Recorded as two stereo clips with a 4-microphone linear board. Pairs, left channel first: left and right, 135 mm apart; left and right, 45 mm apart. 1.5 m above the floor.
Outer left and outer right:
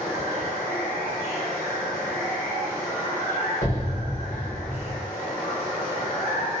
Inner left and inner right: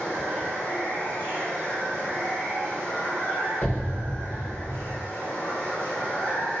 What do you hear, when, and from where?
0.0 s running water: 85° left, 1.3 m
3.6 s an explosion: 80° left, 1.5 m